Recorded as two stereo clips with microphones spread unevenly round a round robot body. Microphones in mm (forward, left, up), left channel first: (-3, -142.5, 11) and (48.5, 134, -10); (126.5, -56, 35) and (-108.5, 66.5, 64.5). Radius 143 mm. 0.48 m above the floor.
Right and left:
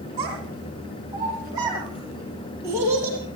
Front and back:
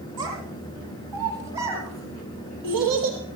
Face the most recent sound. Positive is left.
turn(degrees=165)